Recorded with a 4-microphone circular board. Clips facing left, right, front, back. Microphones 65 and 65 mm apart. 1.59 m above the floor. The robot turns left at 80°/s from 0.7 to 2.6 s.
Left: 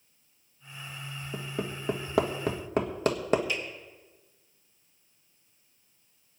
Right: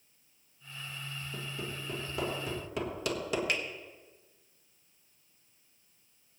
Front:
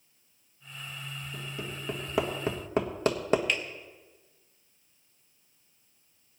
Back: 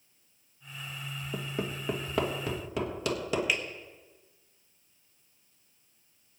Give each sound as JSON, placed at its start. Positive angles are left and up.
{"t": 1.3, "sound": "hammering", "azimuth_deg": 150, "distance_m": 1.4}
{"t": 3.5, "sound": "a finger snap", "azimuth_deg": -100, "distance_m": 1.3}